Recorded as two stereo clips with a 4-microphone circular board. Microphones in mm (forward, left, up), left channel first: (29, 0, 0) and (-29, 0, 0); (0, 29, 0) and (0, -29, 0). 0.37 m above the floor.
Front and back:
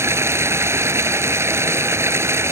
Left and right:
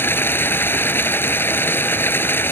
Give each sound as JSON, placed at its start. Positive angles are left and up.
{"t": 0.0, "sound": "running water", "azimuth_deg": 145}